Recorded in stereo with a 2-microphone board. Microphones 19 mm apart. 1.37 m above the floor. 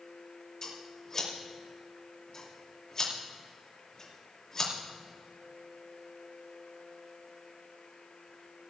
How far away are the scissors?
About 2.5 m.